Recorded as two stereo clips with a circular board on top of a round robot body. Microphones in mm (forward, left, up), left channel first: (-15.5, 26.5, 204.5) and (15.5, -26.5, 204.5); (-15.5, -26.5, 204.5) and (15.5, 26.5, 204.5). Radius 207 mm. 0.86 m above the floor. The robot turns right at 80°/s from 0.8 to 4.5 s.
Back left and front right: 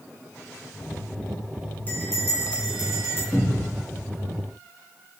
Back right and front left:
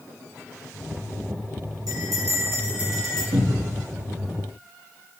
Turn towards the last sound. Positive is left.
turn(degrees=140)